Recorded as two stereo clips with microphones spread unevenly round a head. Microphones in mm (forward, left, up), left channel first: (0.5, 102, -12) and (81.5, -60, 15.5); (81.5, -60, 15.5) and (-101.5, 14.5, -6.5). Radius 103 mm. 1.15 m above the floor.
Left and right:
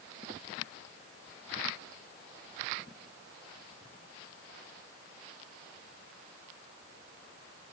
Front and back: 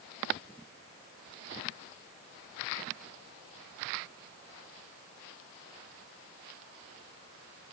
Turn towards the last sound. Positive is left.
No sound to turn to.